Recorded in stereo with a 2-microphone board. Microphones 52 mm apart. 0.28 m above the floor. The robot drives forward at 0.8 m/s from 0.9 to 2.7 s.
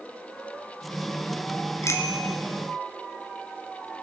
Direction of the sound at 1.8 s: 60° left (ahead or behind).